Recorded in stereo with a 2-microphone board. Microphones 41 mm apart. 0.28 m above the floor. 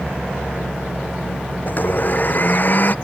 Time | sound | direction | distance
1.7 | a blender | 50° left (ahead or behind) | ?